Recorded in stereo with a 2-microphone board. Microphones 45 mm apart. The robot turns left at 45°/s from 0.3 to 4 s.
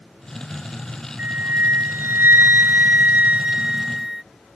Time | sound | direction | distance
1.2 | a flute | 45° right | ?